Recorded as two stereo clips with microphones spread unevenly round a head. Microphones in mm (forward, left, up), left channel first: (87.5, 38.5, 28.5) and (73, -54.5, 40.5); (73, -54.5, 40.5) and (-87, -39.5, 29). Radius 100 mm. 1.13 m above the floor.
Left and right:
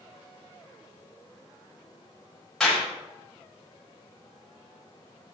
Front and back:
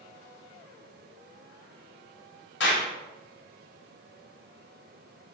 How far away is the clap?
About 6 m.